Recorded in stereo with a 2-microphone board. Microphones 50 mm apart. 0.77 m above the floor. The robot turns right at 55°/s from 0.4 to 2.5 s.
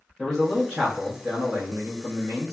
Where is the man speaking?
Straight behind, 0.9 m; by 2.5 s 65° right, 0.9 m.